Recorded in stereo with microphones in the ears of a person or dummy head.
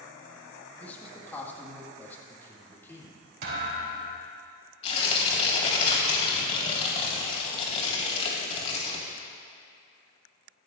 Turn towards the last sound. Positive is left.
turn(degrees=35)  # may be behind; listen again after turning